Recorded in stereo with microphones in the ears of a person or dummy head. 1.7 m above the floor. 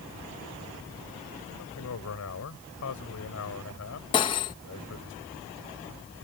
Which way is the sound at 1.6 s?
75° left (ahead or behind).